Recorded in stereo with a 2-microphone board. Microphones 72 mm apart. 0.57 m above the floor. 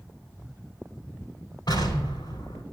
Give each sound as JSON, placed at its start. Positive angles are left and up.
{"t": 1.7, "sound": "an explosion", "side_deg": 80, "distance_m": 3.5}